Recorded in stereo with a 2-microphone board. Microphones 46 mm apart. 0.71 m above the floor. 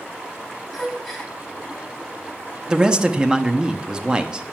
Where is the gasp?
5° right (ahead or behind), 2 m.